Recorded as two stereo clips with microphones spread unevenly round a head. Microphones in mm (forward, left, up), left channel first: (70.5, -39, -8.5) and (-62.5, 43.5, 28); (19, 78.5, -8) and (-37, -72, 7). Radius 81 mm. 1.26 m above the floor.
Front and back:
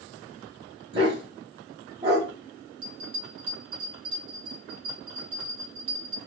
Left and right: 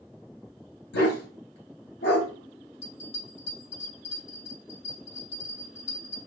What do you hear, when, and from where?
0.9 s a dog barking: 90° left, 3 m
2.8 s a bell: 90° left, 3.5 m